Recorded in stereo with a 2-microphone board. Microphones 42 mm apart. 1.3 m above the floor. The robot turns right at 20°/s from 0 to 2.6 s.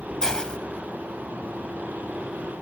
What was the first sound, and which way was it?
A hiss, 10° left (ahead or behind).